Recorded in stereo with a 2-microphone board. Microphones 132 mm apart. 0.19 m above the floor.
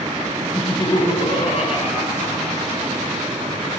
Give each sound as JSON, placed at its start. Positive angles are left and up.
{"t": 0.6, "sound": "laughter", "side_deg": 20, "distance_m": 1.0}